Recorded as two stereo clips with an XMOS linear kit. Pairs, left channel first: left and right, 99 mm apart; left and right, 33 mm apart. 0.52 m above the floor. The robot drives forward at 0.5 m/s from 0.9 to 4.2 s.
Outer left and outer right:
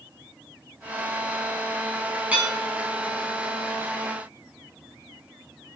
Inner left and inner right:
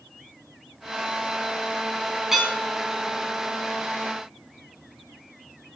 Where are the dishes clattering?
15° right (ahead or behind), 3.5 m.